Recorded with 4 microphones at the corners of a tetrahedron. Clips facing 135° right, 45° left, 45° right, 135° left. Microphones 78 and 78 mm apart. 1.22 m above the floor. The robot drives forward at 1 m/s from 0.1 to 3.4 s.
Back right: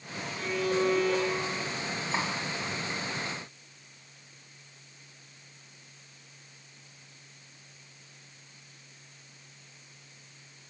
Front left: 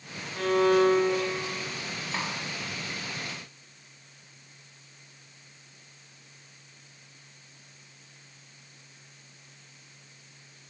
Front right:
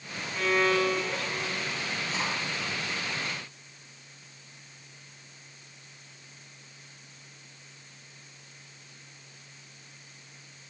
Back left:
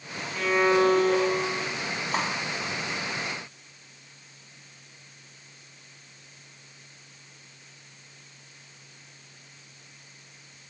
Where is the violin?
45° left, 0.8 m; by 1.8 s 150° left, 1.1 m.